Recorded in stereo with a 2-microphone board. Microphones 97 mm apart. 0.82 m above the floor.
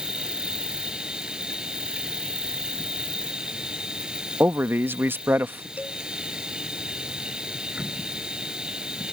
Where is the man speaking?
20° right (ahead or behind).